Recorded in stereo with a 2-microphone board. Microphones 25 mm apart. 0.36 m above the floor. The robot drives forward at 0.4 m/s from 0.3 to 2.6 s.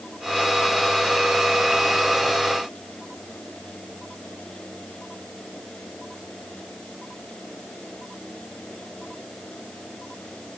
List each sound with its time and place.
Only background noise.